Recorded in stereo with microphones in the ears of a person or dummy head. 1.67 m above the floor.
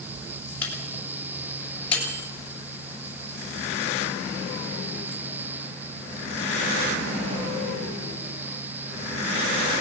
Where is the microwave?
5° left (ahead or behind), 7 m.